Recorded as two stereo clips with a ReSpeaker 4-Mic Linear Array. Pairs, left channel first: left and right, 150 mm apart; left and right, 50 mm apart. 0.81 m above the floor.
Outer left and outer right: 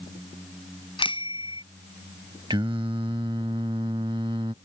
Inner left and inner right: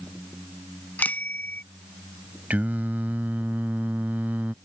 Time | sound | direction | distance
1.0 | a bicycle bell | 35° left (ahead or behind) | ?
2.5 | singing | 35° right (ahead or behind) | ?